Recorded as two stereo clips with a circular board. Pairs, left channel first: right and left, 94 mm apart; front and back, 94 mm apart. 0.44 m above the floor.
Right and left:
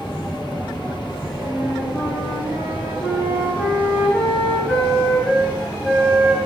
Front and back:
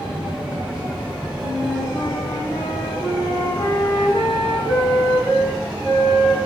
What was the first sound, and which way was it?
A flute, 15° right.